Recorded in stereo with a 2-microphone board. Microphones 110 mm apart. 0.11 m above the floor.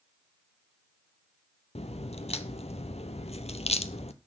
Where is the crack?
70° left (ahead or behind), 0.7 m.